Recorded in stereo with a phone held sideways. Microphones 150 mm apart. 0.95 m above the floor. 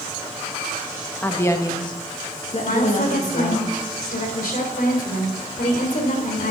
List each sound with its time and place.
1.2 s a woman speaking: 10° left (ahead or behind), 1.0 m; by 3.6 s 55° left (ahead or behind), 1.7 m
2.6 s a woman speaking: 70° left (ahead or behind), 3 m